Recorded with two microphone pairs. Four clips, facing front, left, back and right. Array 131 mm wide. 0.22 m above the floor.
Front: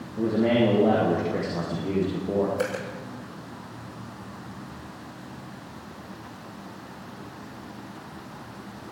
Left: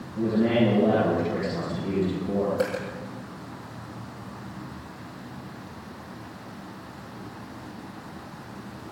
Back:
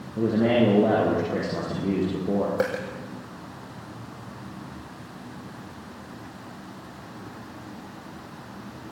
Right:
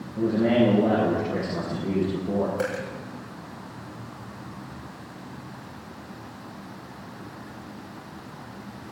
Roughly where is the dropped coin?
Behind.